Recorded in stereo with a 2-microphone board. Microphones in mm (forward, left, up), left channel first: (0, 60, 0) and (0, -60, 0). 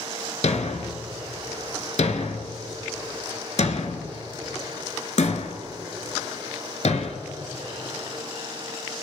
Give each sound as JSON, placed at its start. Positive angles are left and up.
{"t": 0.4, "sound": "a thud", "side_deg": 70, "distance_m": 1.0}